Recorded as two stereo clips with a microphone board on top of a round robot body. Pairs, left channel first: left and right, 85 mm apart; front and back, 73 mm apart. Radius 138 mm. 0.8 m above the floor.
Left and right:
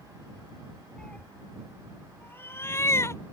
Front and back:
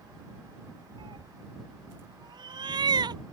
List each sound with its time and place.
1.0 s a cat meowing: 170° left; by 3.2 s 150° left